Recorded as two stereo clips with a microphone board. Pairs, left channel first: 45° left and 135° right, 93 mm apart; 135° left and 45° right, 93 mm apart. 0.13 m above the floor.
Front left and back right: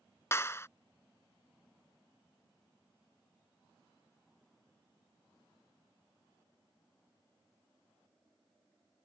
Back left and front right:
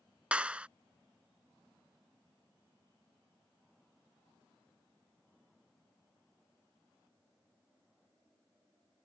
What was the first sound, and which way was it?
A clap, 20° left.